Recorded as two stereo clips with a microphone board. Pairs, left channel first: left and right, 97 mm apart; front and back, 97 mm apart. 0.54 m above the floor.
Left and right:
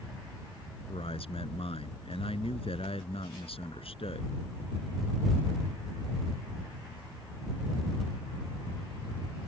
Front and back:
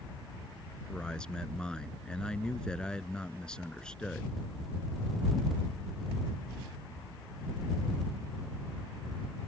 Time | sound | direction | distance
0.9 | a man speaking | 80° left | ?